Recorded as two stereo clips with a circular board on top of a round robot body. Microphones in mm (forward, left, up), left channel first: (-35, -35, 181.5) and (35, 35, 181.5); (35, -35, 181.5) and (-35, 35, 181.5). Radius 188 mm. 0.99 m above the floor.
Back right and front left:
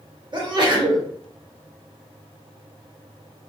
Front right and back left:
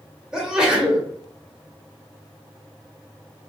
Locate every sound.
0.3 s a sneeze: 55° left, 1.2 m